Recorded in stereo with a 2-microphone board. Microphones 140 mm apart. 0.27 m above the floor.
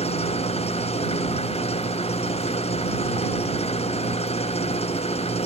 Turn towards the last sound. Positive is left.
turn(degrees=50)  # may be behind; listen again after turning